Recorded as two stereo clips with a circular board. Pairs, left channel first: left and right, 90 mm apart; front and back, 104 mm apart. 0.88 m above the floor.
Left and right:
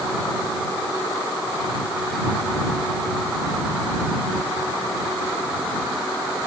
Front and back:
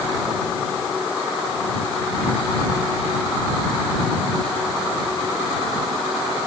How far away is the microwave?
No microwave in this recording.